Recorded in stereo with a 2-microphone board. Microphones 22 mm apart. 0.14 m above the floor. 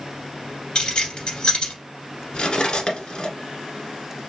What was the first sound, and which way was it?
Keys jangling, 40° left (ahead or behind).